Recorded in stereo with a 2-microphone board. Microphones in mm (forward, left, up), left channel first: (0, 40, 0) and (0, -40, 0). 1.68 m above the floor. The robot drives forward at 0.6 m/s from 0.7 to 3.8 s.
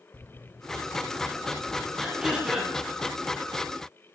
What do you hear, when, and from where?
0.1 s footsteps: 20° left (ahead or behind), 1.7 m; by 1.9 s 35° left (ahead or behind), 2.5 m
2.0 s throat clearing: 10° right (ahead or behind), 9.5 m